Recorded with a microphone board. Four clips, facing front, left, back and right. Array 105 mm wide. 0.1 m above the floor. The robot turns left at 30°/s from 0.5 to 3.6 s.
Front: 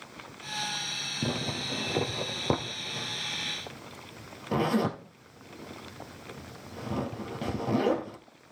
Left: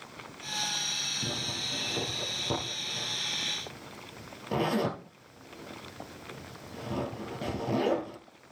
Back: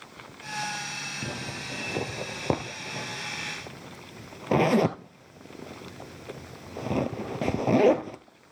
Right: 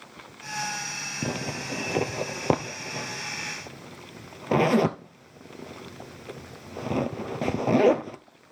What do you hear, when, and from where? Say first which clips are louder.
1.2 s a zipper: right 8 dB, front 6 dB; 60° right, 1.0 m; by 8.2 s 135° right, 1.0 m